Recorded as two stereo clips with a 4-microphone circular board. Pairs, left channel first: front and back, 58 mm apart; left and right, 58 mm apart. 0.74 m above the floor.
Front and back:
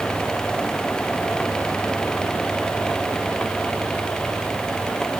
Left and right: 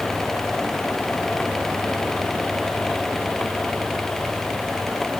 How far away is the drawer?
I don't hear a drawer.